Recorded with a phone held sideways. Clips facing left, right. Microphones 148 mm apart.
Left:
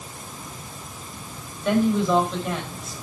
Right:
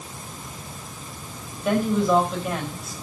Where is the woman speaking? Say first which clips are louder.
Left 1 dB; 10° right (ahead or behind), 5 m.